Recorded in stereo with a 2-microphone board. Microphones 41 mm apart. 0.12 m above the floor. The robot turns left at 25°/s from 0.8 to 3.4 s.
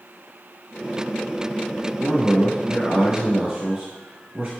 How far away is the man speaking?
About 1.8 m.